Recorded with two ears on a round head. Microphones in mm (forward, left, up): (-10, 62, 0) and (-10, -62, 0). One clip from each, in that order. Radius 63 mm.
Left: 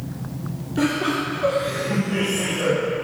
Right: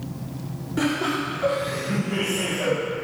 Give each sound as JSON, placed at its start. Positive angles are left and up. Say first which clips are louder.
{"t": 0.8, "sound": "laughter", "louder": "left 2 dB", "side_deg": -40, "distance_m": 1.9}